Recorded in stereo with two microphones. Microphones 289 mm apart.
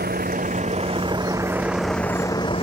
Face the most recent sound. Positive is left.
turn(degrees=20)  # may be behind; listen again after turning